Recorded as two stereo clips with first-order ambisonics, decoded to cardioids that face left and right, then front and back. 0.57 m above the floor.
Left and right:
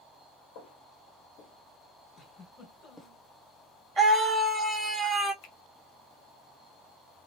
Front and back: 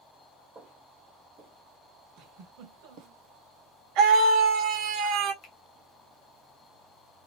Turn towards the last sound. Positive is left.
turn(degrees=65)